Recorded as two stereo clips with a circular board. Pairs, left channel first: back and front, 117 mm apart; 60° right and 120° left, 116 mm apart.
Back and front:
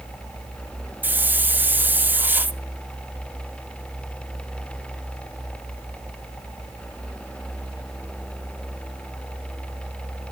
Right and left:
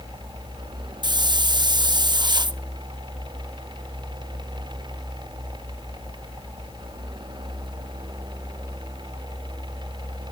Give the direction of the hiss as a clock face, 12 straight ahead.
10 o'clock.